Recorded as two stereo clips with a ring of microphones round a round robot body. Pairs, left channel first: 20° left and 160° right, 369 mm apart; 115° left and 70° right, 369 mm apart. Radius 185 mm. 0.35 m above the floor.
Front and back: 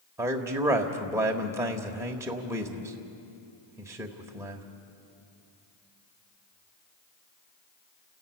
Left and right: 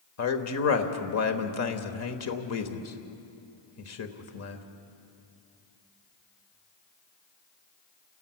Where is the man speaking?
125° left, 1.2 m.